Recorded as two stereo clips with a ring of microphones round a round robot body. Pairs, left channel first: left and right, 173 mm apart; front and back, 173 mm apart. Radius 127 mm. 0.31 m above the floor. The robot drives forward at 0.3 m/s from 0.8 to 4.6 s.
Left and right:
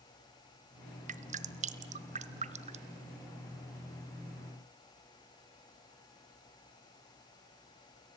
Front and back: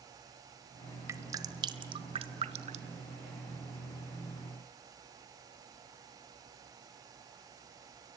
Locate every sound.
1.1 s dripping: 110° right, 1.2 m; by 3.0 s 135° right, 1.4 m